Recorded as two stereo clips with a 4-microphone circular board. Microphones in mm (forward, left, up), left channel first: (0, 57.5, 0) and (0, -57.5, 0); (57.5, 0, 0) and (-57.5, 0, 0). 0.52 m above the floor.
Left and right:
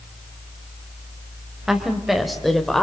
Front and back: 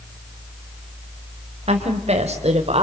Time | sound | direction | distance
1.7 | a woman speaking | 175° right | 2.5 m